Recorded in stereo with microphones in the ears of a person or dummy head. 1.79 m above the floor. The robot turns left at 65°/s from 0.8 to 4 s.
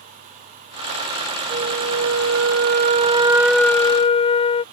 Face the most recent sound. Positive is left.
turn(degrees=155)